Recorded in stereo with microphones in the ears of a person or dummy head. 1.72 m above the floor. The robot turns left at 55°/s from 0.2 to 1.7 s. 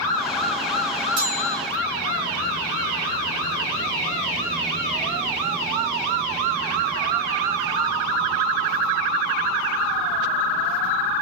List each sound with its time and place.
1.2 s a bell: 15° right (ahead or behind), 0.9 m